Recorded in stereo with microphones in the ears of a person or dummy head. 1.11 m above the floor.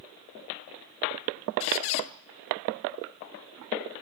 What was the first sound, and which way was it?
A squeak, 35° left (ahead or behind).